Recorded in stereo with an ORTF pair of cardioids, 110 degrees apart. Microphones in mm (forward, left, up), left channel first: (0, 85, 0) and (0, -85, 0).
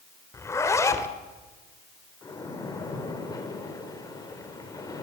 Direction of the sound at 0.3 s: 15° left.